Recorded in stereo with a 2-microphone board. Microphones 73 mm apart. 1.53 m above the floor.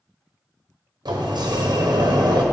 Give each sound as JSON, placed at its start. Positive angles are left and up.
{"t": 1.1, "sound": "a sliding door", "side_deg": -80, "distance_m": 0.9}